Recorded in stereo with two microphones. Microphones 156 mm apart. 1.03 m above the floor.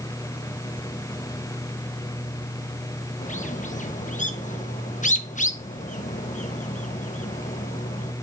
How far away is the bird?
About 0.7 m.